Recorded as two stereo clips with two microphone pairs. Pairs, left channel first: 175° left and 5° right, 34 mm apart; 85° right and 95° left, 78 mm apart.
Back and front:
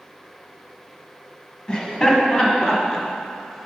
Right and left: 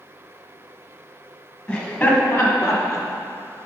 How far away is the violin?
I don't hear a violin.